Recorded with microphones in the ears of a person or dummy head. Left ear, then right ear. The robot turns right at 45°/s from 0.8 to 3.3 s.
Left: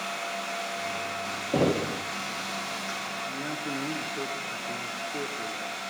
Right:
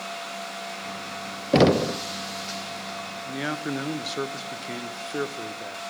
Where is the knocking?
75° right (ahead or behind), 0.6 m; by 2.0 s 55° right (ahead or behind), 0.6 m.